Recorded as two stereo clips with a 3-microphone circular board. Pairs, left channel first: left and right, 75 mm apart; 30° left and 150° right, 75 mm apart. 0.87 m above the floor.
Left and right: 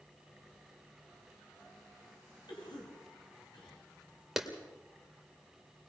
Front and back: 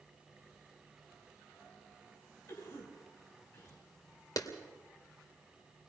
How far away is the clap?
About 2.5 m.